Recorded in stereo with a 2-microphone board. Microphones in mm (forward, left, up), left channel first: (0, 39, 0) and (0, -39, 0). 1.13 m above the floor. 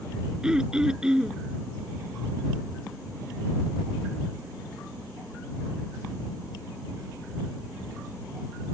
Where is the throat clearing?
10° right (ahead or behind).